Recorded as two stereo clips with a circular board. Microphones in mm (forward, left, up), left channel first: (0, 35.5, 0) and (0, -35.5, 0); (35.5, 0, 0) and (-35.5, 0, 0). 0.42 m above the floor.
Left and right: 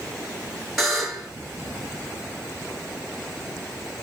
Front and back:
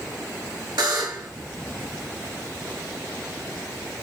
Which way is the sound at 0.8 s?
175° right.